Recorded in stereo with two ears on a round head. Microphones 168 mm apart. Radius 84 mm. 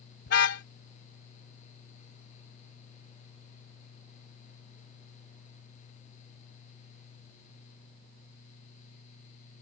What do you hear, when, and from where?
0.3 s a car horn: 60° left (ahead or behind)